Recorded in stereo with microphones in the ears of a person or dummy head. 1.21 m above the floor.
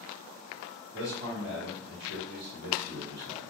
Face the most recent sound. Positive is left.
turn(degrees=-55)  # may be behind; listen again after turning